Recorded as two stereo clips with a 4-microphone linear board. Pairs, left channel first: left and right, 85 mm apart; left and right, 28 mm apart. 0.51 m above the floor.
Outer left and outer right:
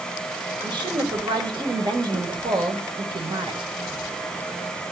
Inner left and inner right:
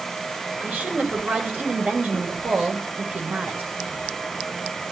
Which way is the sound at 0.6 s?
65° right (ahead or behind).